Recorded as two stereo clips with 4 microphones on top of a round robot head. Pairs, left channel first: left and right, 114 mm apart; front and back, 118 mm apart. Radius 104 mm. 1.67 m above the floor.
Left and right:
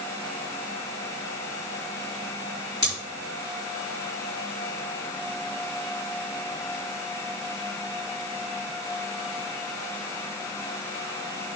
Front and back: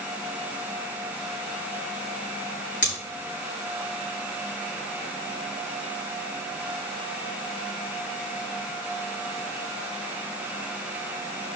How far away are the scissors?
About 4 m.